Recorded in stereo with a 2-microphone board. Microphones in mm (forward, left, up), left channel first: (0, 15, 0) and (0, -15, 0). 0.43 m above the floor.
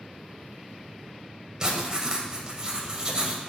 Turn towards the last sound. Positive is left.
turn(degrees=-25)  # may be behind; listen again after turning